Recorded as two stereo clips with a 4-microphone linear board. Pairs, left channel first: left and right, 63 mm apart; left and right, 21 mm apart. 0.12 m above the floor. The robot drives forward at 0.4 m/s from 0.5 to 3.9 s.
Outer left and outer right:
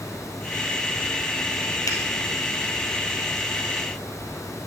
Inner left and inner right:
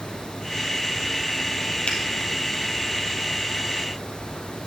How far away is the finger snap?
About 2 m.